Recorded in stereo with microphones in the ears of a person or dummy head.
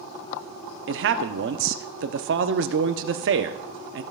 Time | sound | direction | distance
0.9 | a man speaking | 65° right (ahead or behind) | 0.9 m